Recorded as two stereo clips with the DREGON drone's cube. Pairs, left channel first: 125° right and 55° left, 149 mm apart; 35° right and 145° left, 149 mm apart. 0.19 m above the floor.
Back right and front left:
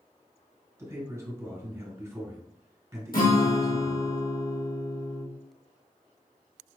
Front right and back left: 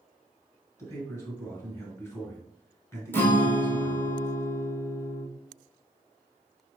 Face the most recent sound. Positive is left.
turn(degrees=-110)